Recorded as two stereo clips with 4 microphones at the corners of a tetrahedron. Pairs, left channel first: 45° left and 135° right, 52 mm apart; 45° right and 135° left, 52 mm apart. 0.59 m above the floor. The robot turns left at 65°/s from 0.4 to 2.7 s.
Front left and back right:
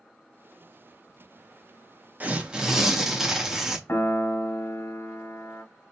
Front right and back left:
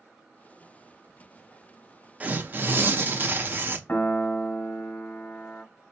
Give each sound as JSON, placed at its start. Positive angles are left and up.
{"t": 2.2, "sound": "tearing paper", "azimuth_deg": 180, "distance_m": 0.5}
{"t": 3.9, "sound": "a piano", "azimuth_deg": 10, "distance_m": 0.9}